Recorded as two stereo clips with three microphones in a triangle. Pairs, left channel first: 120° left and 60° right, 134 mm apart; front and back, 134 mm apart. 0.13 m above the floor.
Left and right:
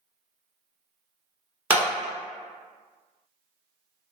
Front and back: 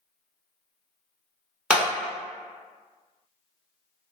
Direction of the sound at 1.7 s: 110° right.